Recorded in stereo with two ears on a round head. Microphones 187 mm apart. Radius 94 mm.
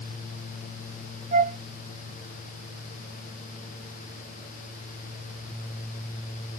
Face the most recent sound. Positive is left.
turn(degrees=-35)  # may be behind; listen again after turning